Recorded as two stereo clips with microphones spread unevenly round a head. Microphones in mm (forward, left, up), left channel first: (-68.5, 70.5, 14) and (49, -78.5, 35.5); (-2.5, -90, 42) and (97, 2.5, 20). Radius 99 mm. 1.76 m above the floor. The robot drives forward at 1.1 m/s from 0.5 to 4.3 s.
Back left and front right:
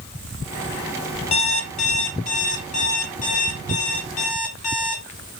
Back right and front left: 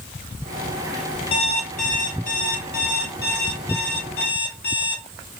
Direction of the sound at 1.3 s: 175° right.